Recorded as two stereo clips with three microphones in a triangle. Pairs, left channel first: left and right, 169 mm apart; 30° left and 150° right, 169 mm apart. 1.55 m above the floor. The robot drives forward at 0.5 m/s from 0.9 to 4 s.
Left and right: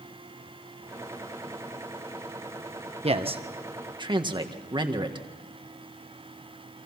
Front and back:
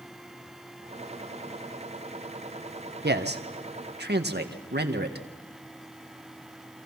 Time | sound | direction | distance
3.0 | a man speaking | 145° right | 1.5 m